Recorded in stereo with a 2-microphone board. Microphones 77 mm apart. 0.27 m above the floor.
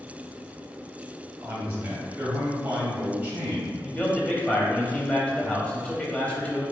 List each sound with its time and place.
1.4 s a man speaking: 20° right (ahead or behind), 1.5 m
3.8 s a man speaking: 15° left (ahead or behind), 1.1 m